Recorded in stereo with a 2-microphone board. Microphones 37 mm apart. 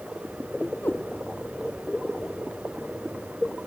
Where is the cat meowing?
65° left (ahead or behind).